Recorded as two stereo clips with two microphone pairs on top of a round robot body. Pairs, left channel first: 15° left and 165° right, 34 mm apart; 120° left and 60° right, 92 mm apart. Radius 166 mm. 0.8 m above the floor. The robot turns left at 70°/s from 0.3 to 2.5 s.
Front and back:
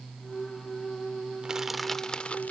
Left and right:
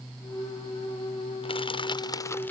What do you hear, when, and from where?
1.4 s crushing: 125° left; by 2.5 s 50° left